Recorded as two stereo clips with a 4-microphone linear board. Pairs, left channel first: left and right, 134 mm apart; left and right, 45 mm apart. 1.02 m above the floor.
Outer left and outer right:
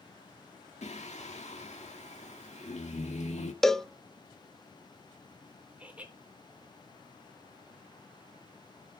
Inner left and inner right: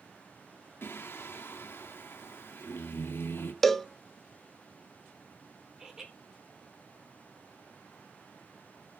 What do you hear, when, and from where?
0.8 s singing: 55° left (ahead or behind), 2.0 m
3.6 s a cowbell: 5° left (ahead or behind), 0.7 m
5.8 s laughter: 10° right (ahead or behind), 3.5 m